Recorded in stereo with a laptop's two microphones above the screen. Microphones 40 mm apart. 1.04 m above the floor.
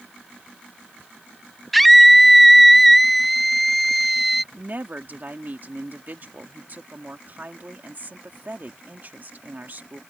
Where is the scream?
5° left (ahead or behind).